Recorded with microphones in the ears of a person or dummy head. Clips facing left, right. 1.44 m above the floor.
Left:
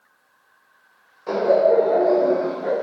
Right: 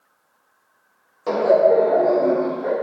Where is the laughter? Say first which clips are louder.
Right 1 dB; 70° right (ahead or behind), 0.6 m; by 2.7 s 55° right (ahead or behind), 1.2 m.